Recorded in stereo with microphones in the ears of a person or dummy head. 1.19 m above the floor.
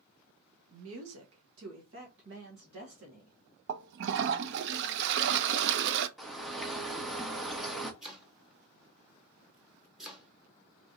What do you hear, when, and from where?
0.7 s a woman speaking: 60° right (ahead or behind), 0.8 m; by 3.4 s 45° right (ahead or behind), 1.7 m
3.7 s a toilet flushing: 65° right (ahead or behind), 0.5 m
6.2 s a bird: centre (ahead or behind), 0.8 m
8.0 s chopping: 5° right (ahead or behind), 0.9 m